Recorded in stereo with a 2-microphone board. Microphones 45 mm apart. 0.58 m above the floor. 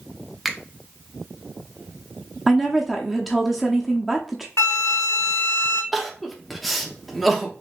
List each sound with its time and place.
0.5 s a finger snap: centre (ahead or behind), 0.6 m
2.5 s a woman speaking: centre (ahead or behind), 0.6 m
4.6 s a flute: 70° left (ahead or behind), 1.2 m
5.9 s crying: centre (ahead or behind), 0.7 m